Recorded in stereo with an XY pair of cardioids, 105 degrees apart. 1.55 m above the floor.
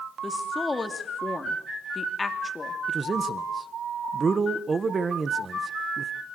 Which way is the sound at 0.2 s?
25° left.